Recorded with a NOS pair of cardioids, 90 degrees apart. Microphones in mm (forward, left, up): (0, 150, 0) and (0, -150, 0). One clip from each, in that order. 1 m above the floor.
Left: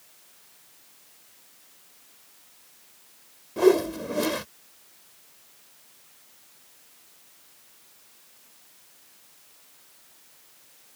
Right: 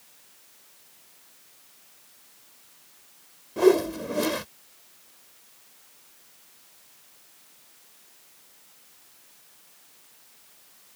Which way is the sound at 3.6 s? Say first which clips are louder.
Even; straight ahead.